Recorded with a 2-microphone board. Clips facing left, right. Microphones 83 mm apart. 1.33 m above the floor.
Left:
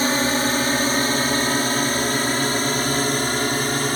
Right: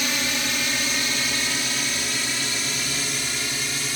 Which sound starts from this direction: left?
A drone, at 0.0 s.